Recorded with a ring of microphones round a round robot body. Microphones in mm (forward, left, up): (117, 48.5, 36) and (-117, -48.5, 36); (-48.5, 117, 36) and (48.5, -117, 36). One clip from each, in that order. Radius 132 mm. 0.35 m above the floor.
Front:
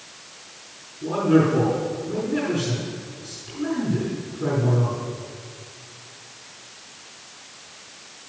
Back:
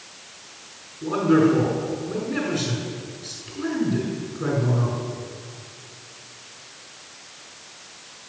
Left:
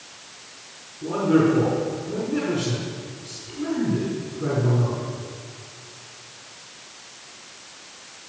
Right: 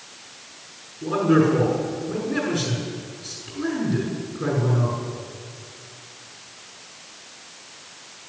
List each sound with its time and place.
1.0 s a man speaking: 100° right, 6.5 m